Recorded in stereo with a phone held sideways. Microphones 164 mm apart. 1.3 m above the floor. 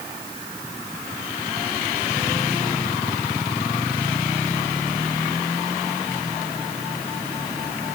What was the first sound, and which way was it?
Only background noise.